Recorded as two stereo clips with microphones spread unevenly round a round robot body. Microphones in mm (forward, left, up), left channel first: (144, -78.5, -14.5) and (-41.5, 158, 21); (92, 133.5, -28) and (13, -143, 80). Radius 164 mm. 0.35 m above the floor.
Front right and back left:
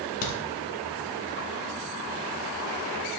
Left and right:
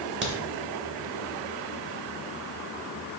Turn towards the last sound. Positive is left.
turn(degrees=-45)